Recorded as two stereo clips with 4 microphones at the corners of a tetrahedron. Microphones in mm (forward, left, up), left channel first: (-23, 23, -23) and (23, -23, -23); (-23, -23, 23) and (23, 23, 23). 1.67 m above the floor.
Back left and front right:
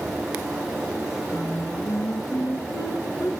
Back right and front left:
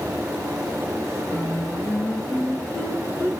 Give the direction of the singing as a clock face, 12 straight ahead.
7 o'clock.